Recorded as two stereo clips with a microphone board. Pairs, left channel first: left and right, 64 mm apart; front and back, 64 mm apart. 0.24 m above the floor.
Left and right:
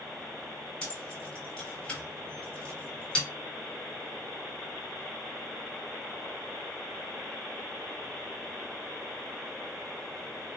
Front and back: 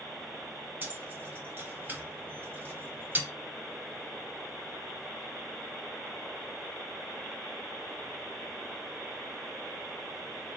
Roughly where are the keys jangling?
Behind left.